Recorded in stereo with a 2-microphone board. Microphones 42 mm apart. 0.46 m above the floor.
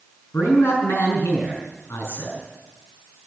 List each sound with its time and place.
0.3 s a man speaking: 80° left, 5 m